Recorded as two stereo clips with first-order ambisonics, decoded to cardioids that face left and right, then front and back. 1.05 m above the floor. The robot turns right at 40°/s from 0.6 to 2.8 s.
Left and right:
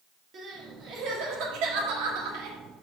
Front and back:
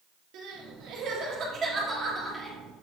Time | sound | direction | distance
0.3 | crying | 150° right | 1.6 m